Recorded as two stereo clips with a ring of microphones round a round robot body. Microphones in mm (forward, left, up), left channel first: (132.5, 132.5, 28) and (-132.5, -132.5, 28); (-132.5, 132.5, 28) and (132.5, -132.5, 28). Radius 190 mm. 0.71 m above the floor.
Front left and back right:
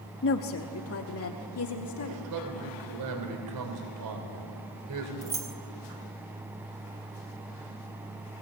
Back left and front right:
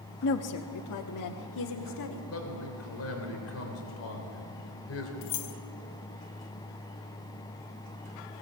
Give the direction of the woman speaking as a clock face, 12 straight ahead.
9 o'clock.